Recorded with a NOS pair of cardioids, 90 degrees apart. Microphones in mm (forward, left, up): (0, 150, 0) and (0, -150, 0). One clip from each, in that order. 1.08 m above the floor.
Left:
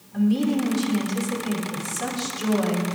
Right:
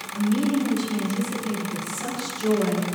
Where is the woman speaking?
60° left, 7.5 m.